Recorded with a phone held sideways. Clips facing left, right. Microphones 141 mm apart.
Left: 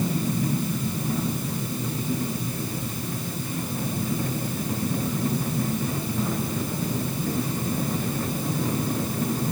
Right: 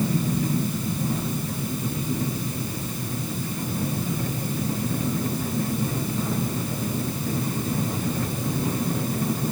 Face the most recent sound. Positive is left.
No sound to turn to.